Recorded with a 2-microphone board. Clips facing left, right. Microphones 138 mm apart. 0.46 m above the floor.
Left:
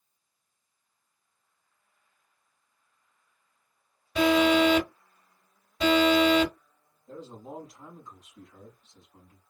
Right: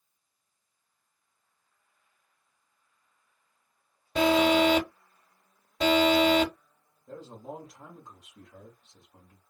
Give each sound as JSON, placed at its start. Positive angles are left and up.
{"t": 4.2, "sound": "an alarm", "side_deg": -40, "distance_m": 2.5}
{"t": 7.1, "sound": "a man speaking", "side_deg": -50, "distance_m": 2.0}